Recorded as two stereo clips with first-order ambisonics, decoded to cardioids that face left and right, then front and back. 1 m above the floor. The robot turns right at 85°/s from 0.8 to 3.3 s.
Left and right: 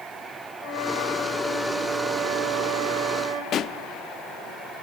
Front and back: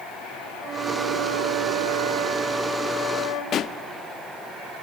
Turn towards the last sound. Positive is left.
turn(degrees=45)